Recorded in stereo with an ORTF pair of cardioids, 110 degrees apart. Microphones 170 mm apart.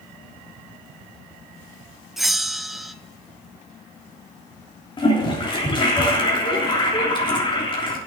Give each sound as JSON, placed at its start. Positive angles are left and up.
{"t": 2.2, "sound": "a bell", "azimuth_deg": 0, "distance_m": 0.6}
{"t": 5.0, "sound": "a toilet flushing", "azimuth_deg": 30, "distance_m": 3.0}